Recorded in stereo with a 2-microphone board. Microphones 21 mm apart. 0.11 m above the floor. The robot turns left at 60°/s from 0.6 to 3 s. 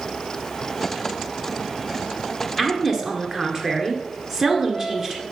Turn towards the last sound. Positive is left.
turn(degrees=-20)  # may be behind; listen again after turning